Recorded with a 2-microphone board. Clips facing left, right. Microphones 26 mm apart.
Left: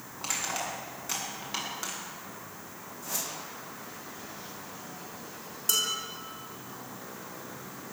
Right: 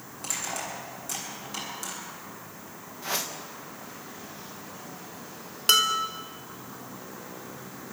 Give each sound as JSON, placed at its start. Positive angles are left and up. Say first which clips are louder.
{"t": 0.2, "sound": "crushing", "louder": "left 1 dB", "side_deg": 30, "distance_m": 8.0}
{"t": 3.0, "sound": "a whoosh", "louder": "right 6 dB", "side_deg": -50, "distance_m": 2.0}
{"t": 5.7, "sound": "dishes clattering", "louder": "right 8 dB", "side_deg": -60, "distance_m": 2.0}